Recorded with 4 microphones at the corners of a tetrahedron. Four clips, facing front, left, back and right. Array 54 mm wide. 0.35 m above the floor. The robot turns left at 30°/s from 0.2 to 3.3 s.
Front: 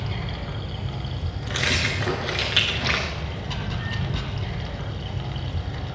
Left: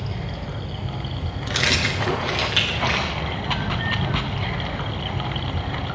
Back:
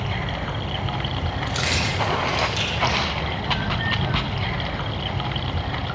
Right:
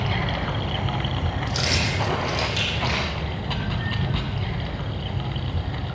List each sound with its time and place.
0.0 s running water: 120° right, 1.0 m; by 6.0 s 145° left, 1.0 m
1.5 s keys jangling: 75° left, 3 m; by 3.1 s 25° left, 3 m